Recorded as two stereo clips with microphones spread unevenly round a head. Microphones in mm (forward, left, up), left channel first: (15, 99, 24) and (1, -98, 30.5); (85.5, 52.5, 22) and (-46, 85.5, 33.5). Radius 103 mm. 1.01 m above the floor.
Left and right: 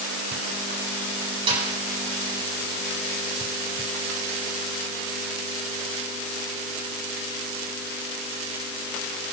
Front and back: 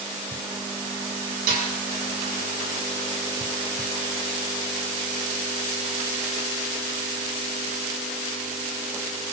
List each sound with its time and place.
1.5 s a snare drum: 160° right, 6 m